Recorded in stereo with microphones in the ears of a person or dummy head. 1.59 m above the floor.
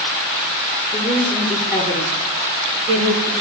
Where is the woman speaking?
5° right (ahead or behind), 3.5 m; by 3.3 s 25° right (ahead or behind), 5 m.